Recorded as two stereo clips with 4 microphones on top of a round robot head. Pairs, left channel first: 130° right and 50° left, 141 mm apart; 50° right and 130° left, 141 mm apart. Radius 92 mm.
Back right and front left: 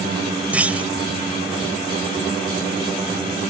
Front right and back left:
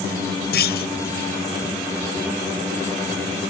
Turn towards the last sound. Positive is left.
turn(degrees=-30)